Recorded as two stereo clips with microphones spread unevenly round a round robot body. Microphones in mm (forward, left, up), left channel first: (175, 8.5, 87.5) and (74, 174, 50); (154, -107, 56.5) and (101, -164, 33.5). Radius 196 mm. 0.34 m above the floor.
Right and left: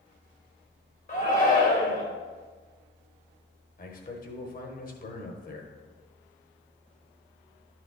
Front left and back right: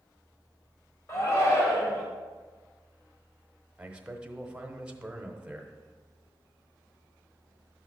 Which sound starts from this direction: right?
A man speaking, at 3.8 s.